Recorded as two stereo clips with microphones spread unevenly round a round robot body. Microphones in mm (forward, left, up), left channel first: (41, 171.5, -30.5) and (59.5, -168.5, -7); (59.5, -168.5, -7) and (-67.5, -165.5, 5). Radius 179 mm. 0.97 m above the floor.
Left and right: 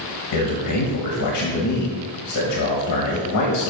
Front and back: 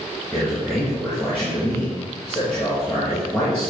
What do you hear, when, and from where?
0.3 s a man speaking: 90° left, 1.3 m